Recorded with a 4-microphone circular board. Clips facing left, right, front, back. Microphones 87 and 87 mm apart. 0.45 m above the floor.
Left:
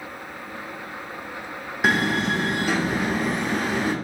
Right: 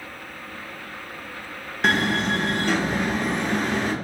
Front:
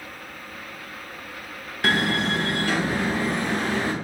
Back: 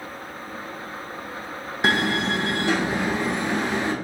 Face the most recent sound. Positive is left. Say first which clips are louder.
# even, back 1 dB
turn(degrees=160)